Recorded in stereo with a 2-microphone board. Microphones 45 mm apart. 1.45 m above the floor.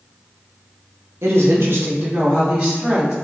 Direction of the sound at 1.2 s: 80° right.